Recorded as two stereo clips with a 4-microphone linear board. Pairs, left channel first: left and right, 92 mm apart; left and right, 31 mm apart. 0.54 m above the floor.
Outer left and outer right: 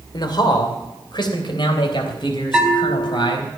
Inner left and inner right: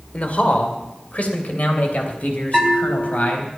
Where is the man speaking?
55° left (ahead or behind), 2.5 m; by 3.5 s 65° left (ahead or behind), 4.5 m.